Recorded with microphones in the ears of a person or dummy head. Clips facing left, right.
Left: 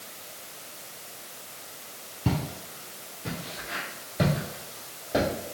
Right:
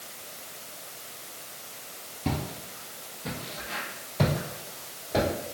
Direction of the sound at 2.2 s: 10° left (ahead or behind).